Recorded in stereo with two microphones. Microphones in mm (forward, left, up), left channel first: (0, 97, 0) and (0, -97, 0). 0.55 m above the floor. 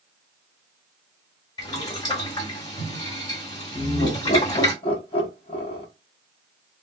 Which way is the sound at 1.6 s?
20° left (ahead or behind).